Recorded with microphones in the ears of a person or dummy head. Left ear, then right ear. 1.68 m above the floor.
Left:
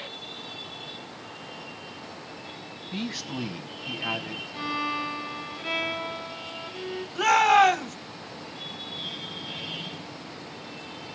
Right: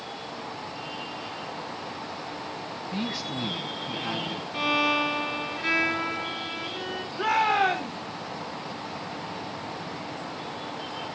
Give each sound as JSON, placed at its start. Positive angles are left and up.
{"t": 2.9, "sound": "a man speaking", "side_deg": 10, "distance_m": 1.5}
{"t": 4.5, "sound": "a violin", "side_deg": -75, "distance_m": 3.0}
{"t": 7.2, "sound": "a shout", "side_deg": 75, "distance_m": 2.0}